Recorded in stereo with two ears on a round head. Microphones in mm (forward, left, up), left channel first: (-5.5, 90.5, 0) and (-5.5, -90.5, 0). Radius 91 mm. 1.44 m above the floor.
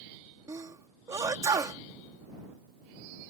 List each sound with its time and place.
0.5 s a sneeze: 15° right (ahead or behind)